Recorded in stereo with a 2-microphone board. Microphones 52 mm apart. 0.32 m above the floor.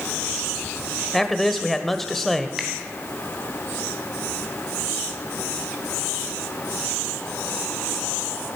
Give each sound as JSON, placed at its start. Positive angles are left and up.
{"t": 1.1, "sound": "a man speaking", "side_deg": 5, "distance_m": 1.0}
{"t": 2.6, "sound": "a finger snap", "side_deg": -5, "distance_m": 2.5}